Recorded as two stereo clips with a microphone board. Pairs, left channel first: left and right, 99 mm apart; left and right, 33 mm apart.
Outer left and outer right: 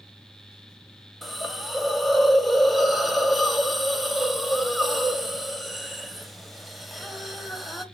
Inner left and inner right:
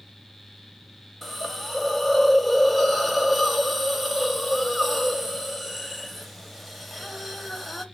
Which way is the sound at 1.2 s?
Centre (ahead or behind).